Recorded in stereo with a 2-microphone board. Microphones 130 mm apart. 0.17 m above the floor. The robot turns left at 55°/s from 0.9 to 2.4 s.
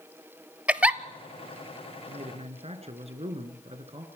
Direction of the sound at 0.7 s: 10° right (ahead or behind).